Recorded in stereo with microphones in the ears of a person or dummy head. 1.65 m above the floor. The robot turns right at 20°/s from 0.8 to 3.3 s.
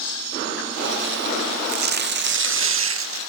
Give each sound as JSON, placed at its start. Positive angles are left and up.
{"t": 1.7, "sound": "tearing paper", "azimuth_deg": -130}